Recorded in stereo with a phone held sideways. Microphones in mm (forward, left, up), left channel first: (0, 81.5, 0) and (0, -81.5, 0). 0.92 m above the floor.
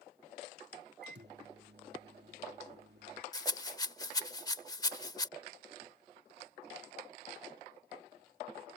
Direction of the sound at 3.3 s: 20° left (ahead or behind).